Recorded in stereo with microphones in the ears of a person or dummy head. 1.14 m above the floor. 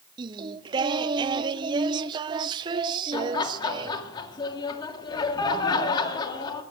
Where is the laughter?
20° left (ahead or behind), 2 m.